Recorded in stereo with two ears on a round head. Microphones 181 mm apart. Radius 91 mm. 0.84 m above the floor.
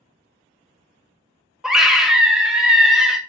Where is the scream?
5° right (ahead or behind), 0.6 m.